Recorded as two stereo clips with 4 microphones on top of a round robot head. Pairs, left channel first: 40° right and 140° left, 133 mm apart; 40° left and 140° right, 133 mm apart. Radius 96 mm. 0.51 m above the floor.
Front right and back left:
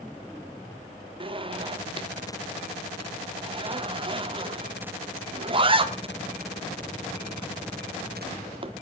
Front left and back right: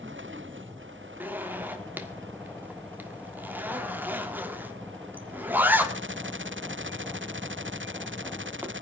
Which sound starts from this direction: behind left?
A zipper, at 1.2 s.